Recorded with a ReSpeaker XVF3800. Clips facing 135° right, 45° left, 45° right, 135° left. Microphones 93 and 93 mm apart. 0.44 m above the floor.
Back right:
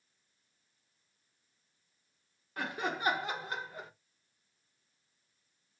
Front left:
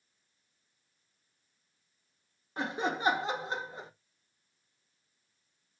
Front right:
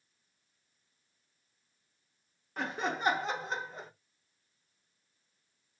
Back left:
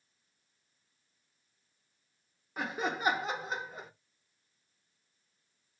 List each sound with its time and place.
2.6 s laughter: 60° left, 0.9 m